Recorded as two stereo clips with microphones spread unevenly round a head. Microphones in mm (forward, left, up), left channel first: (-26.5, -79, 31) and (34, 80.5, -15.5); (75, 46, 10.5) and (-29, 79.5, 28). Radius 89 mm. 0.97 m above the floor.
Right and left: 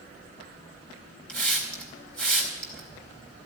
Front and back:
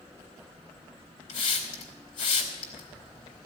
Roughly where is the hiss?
Ahead right.